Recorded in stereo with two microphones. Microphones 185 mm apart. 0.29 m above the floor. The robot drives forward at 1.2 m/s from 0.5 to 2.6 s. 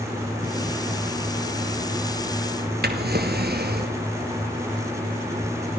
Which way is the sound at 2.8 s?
60° right (ahead or behind).